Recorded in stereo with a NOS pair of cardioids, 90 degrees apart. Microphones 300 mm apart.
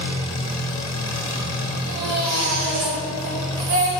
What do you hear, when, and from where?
0.0 s an engine running: 60° left, 1.3 m
1.9 s a baby crying: 60° right, 2 m